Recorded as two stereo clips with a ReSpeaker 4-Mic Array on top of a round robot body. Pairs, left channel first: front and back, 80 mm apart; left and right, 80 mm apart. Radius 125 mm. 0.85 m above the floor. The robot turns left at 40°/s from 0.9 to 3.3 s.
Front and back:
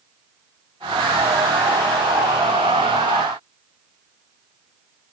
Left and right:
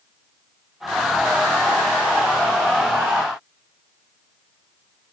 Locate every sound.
Only background noise.